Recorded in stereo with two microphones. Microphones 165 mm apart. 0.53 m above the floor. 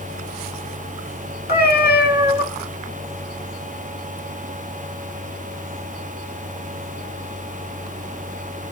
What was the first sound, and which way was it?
A cat meowing, 75° left (ahead or behind).